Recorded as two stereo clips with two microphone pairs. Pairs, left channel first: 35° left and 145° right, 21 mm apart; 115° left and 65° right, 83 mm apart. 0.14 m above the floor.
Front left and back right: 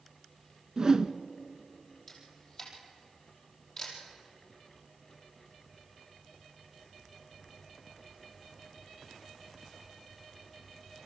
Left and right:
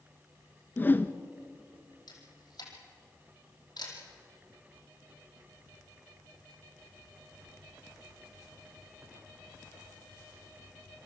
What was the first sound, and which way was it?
A whoosh, 175° left.